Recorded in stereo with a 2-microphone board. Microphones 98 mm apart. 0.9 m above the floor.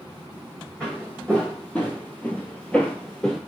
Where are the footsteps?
10° left (ahead or behind), 1.9 m; by 3.4 s 5° left (ahead or behind), 1.1 m.